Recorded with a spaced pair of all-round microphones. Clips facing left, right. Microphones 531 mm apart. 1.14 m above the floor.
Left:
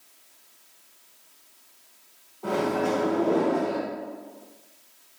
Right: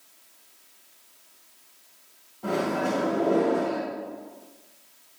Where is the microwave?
35° right (ahead or behind), 1.1 m.